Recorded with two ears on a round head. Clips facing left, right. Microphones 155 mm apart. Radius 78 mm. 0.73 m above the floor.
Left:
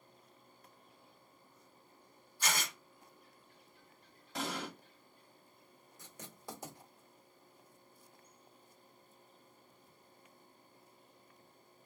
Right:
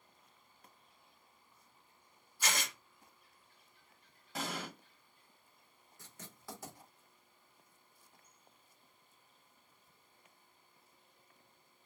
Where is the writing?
15° left (ahead or behind), 1.3 m.